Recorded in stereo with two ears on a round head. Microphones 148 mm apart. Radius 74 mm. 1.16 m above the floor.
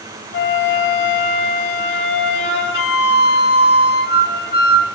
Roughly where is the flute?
Left.